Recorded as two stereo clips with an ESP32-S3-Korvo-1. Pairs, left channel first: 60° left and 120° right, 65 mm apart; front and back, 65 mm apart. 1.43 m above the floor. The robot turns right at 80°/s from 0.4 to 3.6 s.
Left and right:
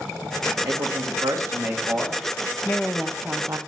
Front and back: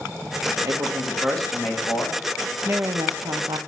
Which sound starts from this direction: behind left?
A woman speaking, at 2.6 s.